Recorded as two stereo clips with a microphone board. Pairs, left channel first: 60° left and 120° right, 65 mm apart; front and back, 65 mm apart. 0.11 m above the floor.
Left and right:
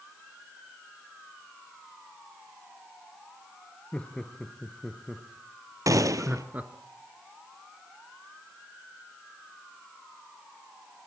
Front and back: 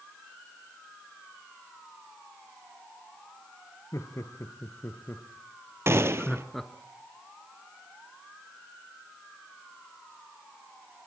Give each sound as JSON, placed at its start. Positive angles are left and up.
{"t": 3.9, "sound": "laughter", "azimuth_deg": -10, "distance_m": 2.0}
{"t": 5.9, "sound": "a gunshot", "azimuth_deg": -135, "distance_m": 1.1}